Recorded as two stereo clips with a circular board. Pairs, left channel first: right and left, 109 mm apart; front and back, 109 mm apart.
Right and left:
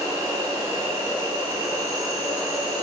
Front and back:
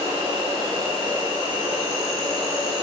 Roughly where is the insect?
Behind left.